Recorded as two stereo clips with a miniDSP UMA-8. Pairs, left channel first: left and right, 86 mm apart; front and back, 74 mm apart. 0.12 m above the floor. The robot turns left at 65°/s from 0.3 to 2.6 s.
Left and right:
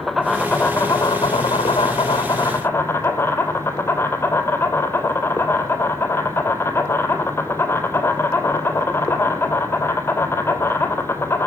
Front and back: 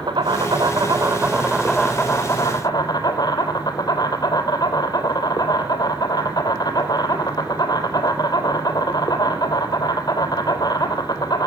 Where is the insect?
175° left, 1.3 m; by 11.5 s 25° left, 1.3 m.